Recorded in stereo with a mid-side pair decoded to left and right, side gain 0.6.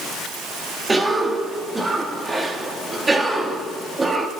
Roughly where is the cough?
Ahead.